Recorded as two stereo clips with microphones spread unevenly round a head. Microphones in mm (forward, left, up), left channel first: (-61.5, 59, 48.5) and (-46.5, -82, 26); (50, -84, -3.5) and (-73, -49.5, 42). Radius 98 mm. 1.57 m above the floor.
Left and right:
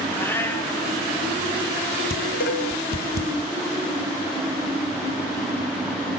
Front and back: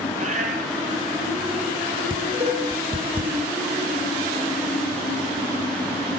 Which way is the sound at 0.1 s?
170° left.